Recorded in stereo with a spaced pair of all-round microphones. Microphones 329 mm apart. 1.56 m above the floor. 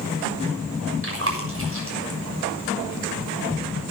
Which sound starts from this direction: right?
Chewing, at 1.0 s.